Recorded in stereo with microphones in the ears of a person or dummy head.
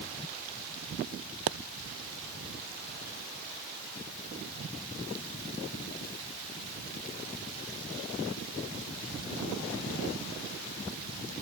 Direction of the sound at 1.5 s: 60° right (ahead or behind).